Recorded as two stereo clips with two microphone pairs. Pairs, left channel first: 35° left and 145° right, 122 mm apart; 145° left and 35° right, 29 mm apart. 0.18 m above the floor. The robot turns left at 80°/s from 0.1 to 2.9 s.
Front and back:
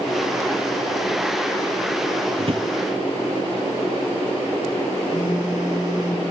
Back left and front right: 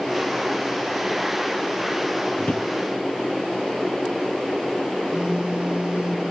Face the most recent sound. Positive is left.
turn(degrees=25)